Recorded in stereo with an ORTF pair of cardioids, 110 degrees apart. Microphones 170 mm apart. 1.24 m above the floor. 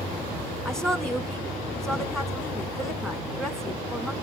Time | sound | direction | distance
0.7 | a woman speaking | 5° left | 1.6 m